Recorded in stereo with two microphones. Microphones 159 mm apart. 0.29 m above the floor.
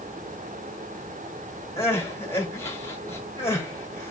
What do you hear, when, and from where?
1.8 s crying: 15° left (ahead or behind), 1.3 m